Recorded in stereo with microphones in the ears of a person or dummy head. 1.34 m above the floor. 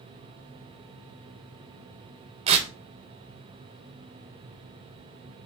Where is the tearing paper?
35° right (ahead or behind), 0.7 m.